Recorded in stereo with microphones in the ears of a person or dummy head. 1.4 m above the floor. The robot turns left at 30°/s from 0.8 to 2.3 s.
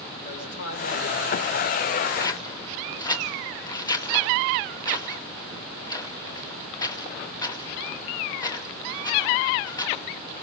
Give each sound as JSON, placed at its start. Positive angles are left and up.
{"t": 0.2, "sound": "a man speaking", "azimuth_deg": 95, "distance_m": 5.5}
{"t": 2.2, "sound": "scissors", "side_deg": 25, "distance_m": 0.9}